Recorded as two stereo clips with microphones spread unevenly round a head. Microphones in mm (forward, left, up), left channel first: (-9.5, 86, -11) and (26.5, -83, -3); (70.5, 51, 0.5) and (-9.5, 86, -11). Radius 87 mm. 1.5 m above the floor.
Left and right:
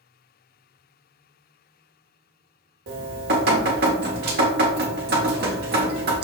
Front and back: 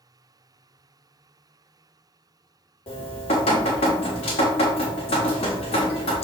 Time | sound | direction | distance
2.9 | dripping | 45° right | 1.1 m